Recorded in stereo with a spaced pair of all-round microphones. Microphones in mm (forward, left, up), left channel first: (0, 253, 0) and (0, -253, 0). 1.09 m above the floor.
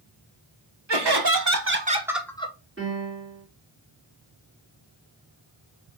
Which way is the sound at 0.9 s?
55° right (ahead or behind).